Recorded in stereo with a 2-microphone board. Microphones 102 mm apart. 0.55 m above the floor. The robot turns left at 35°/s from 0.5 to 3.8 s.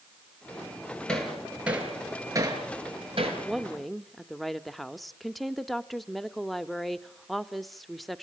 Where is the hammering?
10° left (ahead or behind), 5.5 m; by 3.4 s 70° right (ahead or behind), 5.5 m.